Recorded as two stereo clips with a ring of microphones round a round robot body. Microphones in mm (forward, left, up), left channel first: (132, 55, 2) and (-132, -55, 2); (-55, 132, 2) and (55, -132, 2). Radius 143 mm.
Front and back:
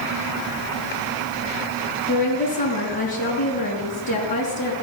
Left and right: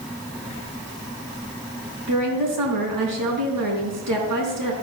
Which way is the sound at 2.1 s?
45° right.